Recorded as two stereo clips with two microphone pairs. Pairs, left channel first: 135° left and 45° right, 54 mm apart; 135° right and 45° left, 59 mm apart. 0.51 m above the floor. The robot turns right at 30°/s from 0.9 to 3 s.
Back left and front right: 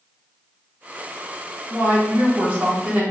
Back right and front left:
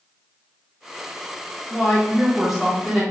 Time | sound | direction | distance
1.7 | a woman speaking | 60° right | 1.1 m